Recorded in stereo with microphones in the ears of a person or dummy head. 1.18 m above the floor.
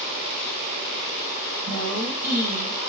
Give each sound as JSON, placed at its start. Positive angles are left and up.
{"t": 1.7, "sound": "a woman speaking", "side_deg": -50, "distance_m": 1.3}